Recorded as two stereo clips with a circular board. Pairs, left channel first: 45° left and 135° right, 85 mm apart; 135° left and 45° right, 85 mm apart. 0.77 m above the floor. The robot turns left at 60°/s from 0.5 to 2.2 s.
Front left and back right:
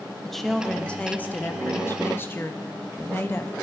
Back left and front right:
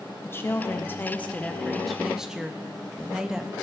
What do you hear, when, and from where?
0.2 s a woman speaking: 130° left, 0.6 m; by 3.5 s 30° left, 0.6 m